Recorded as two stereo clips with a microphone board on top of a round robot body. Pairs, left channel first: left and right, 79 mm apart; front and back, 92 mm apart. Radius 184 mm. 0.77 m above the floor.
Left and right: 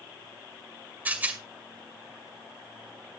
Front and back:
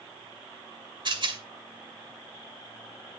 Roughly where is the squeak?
I don't hear a squeak.